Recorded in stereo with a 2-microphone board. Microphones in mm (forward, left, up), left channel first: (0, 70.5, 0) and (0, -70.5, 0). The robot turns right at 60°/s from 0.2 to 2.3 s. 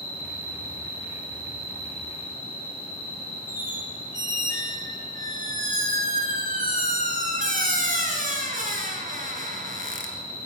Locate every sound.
0.0 s an insect: 105° left, 5 m; by 10.5 s 130° right, 5 m
3.5 s a squeak: 75° right (ahead or behind), 2.5 m